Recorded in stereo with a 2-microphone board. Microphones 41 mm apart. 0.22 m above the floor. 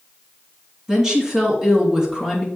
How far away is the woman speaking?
About 3 m.